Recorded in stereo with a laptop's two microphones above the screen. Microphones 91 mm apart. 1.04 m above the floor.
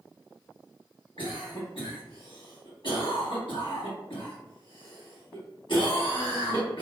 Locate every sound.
1.2 s a cough: 65° left (ahead or behind), 1.6 m